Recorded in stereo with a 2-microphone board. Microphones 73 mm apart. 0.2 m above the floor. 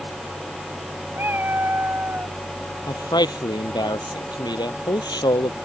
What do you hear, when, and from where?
1.1 s a cat meowing: 30° right (ahead or behind)
2.9 s a man speaking: 75° left (ahead or behind)